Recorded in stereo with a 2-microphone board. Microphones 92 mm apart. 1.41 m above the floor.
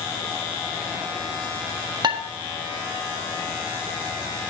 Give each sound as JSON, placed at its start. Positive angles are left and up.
{"t": 2.0, "sound": "dishes clattering", "side_deg": -50, "distance_m": 1.3}